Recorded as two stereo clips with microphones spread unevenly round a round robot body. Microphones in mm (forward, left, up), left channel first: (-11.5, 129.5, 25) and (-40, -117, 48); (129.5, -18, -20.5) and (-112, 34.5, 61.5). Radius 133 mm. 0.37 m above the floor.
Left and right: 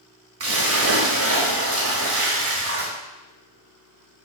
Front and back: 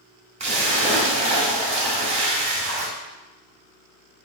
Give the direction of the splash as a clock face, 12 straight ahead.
4 o'clock.